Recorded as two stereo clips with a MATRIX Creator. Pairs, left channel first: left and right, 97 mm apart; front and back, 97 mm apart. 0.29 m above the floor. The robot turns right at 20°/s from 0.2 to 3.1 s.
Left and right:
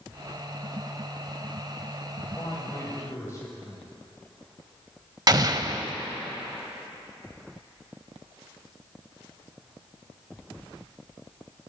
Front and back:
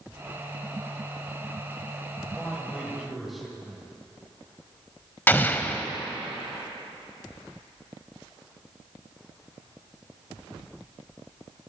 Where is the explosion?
60° right, 0.6 m.